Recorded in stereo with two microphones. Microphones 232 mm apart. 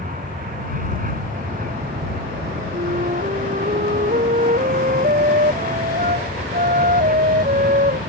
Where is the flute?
35° right (ahead or behind).